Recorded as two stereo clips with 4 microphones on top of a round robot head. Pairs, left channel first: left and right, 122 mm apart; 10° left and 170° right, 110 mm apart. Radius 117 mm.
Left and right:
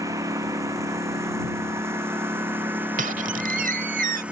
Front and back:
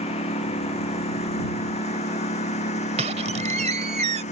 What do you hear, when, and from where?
0.0 s a lawn mower: 25° right; by 4.3 s 10° right
3.0 s a squeak: 125° right